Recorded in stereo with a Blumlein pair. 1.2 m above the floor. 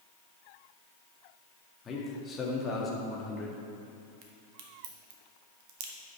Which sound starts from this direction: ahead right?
A crack, at 4.2 s.